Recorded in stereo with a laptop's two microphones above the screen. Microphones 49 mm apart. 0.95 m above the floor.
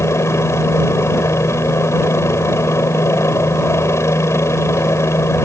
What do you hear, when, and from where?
0.0 s a helicopter: 70° left (ahead or behind)